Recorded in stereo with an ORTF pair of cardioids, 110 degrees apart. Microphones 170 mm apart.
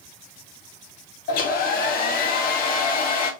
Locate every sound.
1.3 s a hair dryer: 70° left, 1.5 m